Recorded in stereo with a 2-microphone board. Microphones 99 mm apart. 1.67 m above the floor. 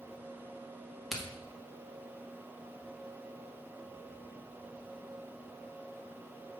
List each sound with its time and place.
1.1 s a crack: centre (ahead or behind), 1.8 m